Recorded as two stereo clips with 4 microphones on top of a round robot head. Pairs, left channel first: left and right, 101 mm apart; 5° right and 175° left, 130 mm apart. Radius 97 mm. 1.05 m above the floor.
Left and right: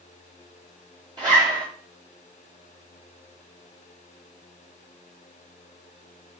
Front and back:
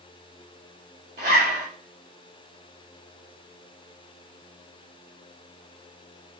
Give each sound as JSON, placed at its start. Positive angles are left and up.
{"t": 1.2, "sound": "a zipper", "azimuth_deg": -135, "distance_m": 5.0}